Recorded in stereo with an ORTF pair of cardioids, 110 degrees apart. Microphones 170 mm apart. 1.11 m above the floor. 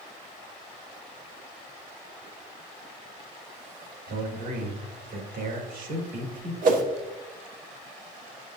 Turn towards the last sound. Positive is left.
turn(degrees=-55)